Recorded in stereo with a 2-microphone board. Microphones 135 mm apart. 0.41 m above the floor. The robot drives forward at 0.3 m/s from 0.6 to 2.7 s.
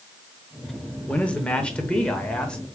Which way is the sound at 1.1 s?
10° left (ahead or behind).